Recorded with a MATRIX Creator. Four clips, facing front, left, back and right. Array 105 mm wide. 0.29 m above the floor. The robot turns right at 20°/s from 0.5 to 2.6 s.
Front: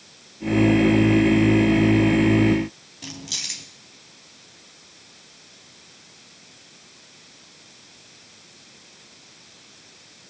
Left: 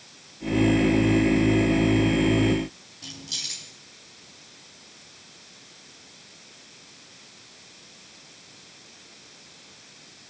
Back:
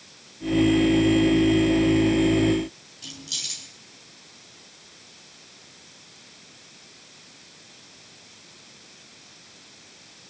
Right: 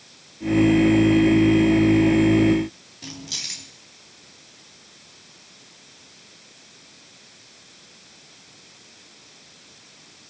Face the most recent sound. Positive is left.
turn(degrees=-30)